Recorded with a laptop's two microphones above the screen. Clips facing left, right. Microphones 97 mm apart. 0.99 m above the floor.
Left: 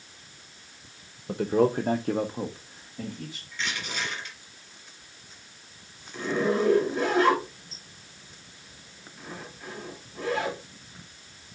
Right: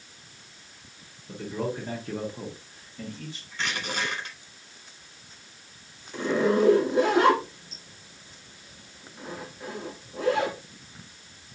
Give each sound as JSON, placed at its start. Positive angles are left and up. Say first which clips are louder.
{"t": 1.3, "sound": "a man speaking", "louder": "left 9 dB", "side_deg": 65, "distance_m": 0.8}
{"t": 3.5, "sound": "crushing", "louder": "right 3 dB", "side_deg": -60, "distance_m": 5.5}
{"t": 6.1, "sound": "a zipper", "louder": "right 2 dB", "side_deg": -85, "distance_m": 5.0}